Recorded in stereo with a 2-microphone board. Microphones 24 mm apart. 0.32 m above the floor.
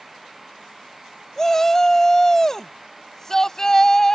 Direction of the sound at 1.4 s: 20° left (ahead or behind).